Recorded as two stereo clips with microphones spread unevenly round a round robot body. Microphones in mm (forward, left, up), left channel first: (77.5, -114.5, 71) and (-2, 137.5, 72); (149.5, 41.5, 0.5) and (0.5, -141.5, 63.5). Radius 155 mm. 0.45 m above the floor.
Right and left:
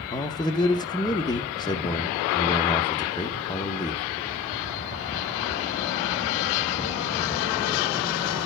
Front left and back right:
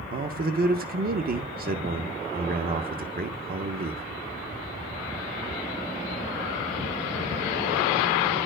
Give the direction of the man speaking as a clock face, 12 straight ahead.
4 o'clock.